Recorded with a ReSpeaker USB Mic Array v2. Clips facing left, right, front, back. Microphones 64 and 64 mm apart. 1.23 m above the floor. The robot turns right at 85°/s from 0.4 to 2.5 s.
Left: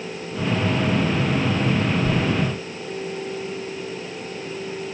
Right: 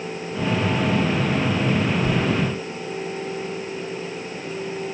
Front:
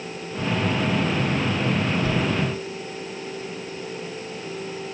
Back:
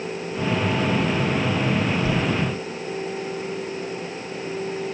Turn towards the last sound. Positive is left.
turn(degrees=-75)